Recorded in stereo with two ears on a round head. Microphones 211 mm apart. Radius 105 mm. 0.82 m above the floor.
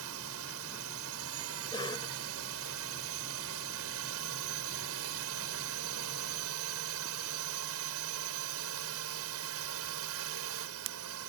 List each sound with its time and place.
0.0 s a drone: 65° right (ahead or behind)
1.7 s a cough: 20° left (ahead or behind)